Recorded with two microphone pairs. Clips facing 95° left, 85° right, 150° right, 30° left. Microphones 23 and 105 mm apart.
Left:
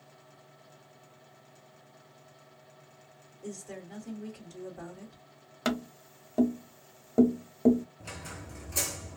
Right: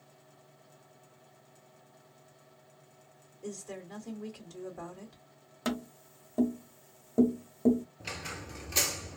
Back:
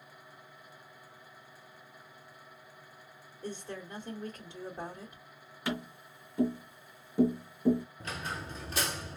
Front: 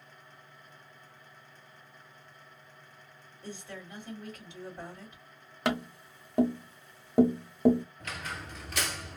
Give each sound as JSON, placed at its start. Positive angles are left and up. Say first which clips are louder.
{"t": 3.4, "sound": "a woman speaking", "louder": "even, back 3 dB", "azimuth_deg": -150, "distance_m": 1.5}
{"t": 5.7, "sound": "tapping", "louder": "left 3 dB, front 5 dB", "azimuth_deg": 40, "distance_m": 0.6}
{"t": 8.0, "sound": "a squeak", "louder": "right 3 dB, back 1 dB", "azimuth_deg": -105, "distance_m": 0.6}